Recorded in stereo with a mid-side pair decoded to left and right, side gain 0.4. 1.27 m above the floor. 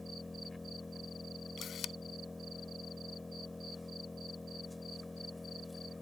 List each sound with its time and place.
0.0 s an engine running: 20° left
1.6 s a camera shutter: 70° left